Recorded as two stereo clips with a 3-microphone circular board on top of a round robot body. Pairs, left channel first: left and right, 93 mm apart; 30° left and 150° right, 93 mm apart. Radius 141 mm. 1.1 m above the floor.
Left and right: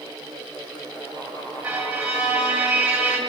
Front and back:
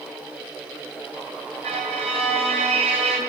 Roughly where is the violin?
Behind.